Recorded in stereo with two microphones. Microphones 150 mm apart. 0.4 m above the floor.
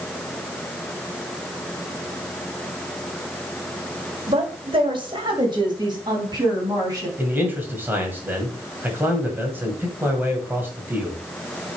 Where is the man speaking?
10° right (ahead or behind), 2.5 m.